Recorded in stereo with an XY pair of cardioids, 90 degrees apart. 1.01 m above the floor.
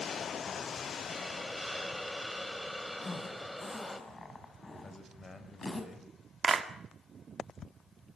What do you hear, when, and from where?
1.1 s a hiss: 5° left, 1.8 m
3.0 s a zipper: 30° left, 4.5 m
4.8 s a man speaking: 35° left, 4.5 m
6.4 s a clap: 40° right, 1.9 m